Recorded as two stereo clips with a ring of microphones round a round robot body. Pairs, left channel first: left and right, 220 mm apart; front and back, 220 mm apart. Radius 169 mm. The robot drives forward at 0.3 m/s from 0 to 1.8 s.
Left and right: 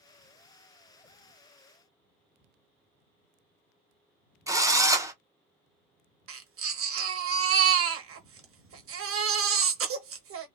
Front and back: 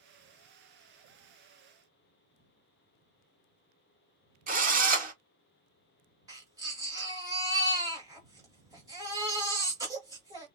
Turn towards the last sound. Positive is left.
turn(degrees=-105)